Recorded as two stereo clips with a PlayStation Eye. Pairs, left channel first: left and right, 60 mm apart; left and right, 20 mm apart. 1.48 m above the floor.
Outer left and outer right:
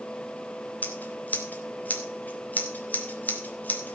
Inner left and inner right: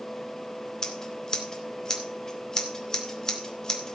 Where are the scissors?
25° left (ahead or behind), 2.5 m.